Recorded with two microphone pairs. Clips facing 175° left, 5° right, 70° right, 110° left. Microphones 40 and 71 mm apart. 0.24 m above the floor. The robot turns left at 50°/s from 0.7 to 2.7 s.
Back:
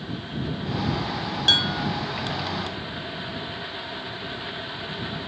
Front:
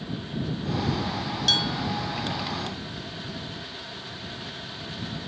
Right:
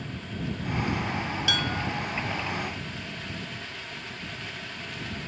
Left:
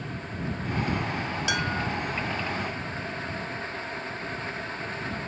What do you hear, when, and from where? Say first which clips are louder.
1.5 s dishes clattering: back 4 dB, left 2 dB; 160° left; by 1.9 s 140° left